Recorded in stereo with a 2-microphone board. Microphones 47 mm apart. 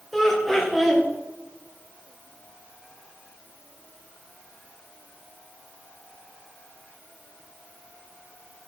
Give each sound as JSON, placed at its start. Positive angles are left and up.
{"t": 0.1, "sound": "laughter", "side_deg": 5, "distance_m": 1.3}